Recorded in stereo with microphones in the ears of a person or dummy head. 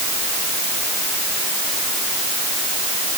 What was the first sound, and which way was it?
Only background noise.